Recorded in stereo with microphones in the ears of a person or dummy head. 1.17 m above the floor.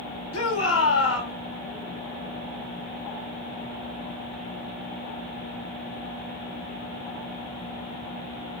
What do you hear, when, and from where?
0.3 s a shout: 80° left, 3 m